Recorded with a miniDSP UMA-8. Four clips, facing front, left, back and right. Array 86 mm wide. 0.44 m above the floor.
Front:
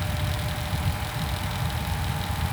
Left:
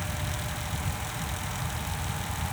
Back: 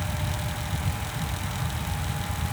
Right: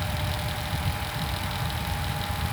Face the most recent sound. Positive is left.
No sound to turn to.